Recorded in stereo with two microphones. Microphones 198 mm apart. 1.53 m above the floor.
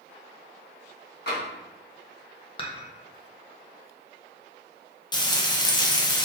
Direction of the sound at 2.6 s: 25° left (ahead or behind).